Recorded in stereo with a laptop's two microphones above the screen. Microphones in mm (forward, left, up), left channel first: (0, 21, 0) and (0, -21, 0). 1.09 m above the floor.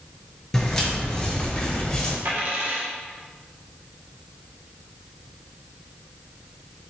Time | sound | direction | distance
0.5 | footsteps | 10° left (ahead or behind) | 1.1 m
2.2 | a dropped coin | 60° right (ahead or behind) | 0.8 m